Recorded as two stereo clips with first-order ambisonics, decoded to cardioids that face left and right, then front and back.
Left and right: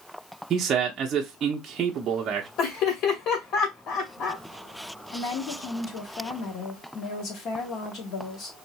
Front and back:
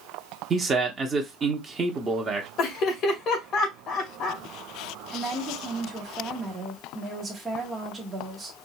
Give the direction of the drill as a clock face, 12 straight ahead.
I don't hear a drill.